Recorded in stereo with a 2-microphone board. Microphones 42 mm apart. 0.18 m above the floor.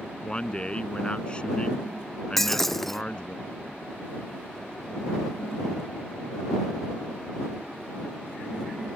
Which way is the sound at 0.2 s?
25° left (ahead or behind).